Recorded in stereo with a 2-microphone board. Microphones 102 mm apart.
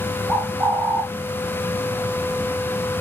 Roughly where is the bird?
Right.